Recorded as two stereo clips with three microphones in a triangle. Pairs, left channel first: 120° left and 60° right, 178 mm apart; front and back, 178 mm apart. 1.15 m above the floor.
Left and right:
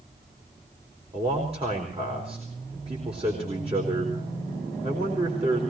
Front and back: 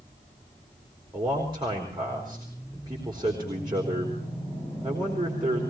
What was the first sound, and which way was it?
A man speaking, 115° right.